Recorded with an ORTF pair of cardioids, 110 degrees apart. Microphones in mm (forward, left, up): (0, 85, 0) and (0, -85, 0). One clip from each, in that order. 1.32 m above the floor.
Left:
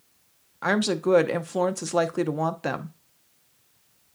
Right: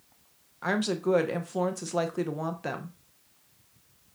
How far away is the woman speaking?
About 0.8 m.